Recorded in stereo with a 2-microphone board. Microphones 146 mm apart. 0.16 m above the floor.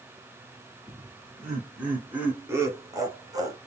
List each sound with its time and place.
0.9 s laughter: centre (ahead or behind), 2 m; by 3.6 s 25° right (ahead or behind), 1.2 m